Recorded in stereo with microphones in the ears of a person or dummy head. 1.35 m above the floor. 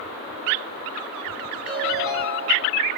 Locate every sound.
1.6 s a ringtone: 10° right (ahead or behind), 7.5 m